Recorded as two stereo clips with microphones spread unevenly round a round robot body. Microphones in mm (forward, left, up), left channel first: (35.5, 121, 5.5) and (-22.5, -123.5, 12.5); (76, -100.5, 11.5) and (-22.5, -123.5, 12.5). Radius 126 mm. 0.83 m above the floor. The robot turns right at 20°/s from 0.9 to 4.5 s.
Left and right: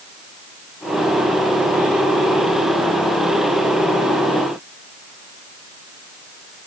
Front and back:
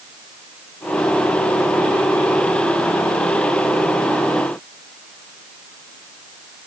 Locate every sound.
Only background noise.